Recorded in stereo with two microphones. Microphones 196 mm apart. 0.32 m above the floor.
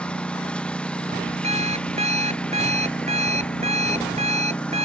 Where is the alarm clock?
35° right (ahead or behind).